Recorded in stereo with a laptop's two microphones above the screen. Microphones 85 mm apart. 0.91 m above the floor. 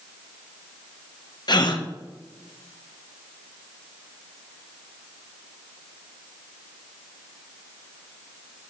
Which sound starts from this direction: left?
A gasp, at 1.5 s.